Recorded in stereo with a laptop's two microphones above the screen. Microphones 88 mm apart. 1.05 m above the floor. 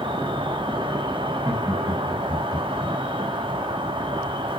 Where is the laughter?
35° right (ahead or behind), 1.7 m.